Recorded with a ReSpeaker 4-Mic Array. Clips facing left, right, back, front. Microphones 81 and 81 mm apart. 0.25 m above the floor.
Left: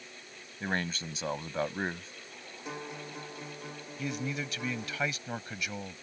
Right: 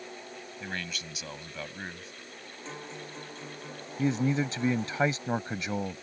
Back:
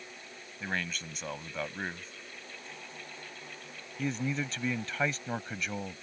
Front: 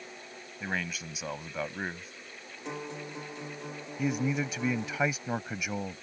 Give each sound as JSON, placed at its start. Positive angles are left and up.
{"t": 0.6, "sound": "a man speaking", "azimuth_deg": 75}
{"t": 2.6, "sound": "a guitar", "azimuth_deg": 10}
{"t": 4.0, "sound": "a man speaking", "azimuth_deg": -70}